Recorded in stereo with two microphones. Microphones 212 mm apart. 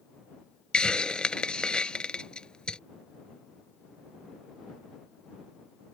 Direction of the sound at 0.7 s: 5° left (ahead or behind).